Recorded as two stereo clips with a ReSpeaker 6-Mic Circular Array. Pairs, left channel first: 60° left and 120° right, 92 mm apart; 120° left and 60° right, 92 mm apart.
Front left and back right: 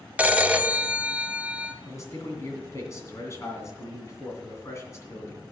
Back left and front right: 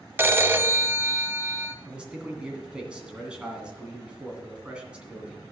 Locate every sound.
0.2 s a phone ringing: 70° right, 0.6 m
1.9 s a man speaking: 15° left, 2.5 m